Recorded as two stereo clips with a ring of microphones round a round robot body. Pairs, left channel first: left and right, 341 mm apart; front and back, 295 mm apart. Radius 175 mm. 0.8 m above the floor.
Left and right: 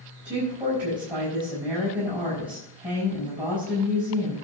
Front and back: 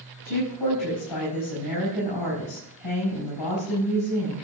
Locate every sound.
0.2 s a woman speaking: 15° right, 5.5 m